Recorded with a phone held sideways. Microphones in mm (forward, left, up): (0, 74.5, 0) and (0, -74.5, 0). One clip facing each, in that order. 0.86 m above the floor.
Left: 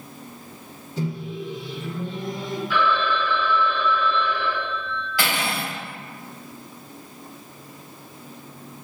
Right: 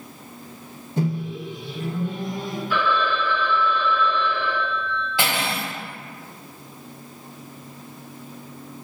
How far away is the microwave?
About 0.8 m.